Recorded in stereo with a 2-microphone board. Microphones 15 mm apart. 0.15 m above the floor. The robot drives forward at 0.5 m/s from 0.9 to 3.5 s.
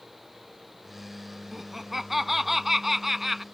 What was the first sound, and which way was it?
Laughter, 15° right (ahead or behind).